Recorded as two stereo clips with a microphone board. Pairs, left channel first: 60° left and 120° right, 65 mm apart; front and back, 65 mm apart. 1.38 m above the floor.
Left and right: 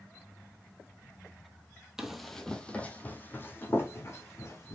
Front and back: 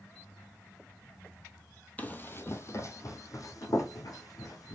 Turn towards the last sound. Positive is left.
turn(degrees=20)